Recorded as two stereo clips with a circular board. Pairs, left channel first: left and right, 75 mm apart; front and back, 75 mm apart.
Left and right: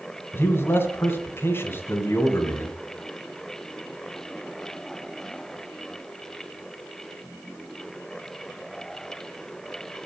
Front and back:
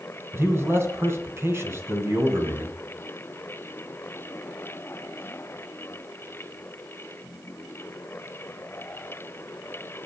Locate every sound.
0.3 s a man speaking: 140° left, 2.0 m